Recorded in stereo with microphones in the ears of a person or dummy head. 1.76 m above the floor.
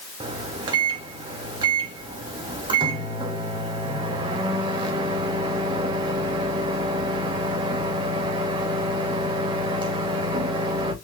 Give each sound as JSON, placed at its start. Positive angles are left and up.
{"t": 0.2, "sound": "a microwave", "side_deg": -25, "distance_m": 1.1}